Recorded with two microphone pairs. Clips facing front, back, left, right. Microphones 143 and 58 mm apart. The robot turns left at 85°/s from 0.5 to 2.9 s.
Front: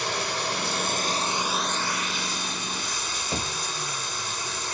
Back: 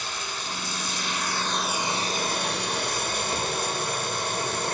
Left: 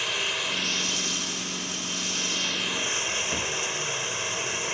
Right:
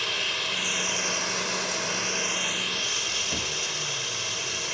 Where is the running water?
5° left, 1.3 m; by 4.8 s 160° left, 1.3 m.